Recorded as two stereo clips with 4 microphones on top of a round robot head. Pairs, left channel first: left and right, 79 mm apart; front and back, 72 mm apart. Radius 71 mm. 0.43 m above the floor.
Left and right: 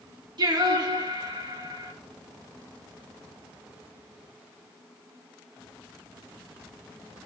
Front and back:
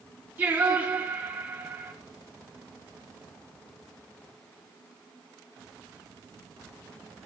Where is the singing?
115° right, 5.5 m.